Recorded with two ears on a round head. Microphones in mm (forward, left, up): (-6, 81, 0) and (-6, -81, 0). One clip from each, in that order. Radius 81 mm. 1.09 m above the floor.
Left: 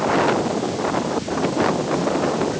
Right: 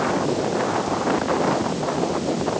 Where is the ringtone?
I don't hear a ringtone.